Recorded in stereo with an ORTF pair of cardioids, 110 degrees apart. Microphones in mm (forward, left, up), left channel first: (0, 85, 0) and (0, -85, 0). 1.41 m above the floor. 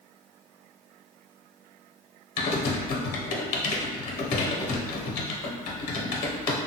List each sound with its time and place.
2.4 s typing on a keyboard: 60° left, 0.7 m